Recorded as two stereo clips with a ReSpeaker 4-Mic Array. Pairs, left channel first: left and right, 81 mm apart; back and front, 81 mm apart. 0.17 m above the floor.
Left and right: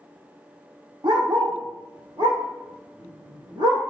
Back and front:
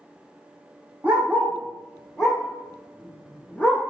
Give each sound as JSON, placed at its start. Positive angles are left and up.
{"t": 1.0, "sound": "a dog barking", "azimuth_deg": -70, "distance_m": 3.0}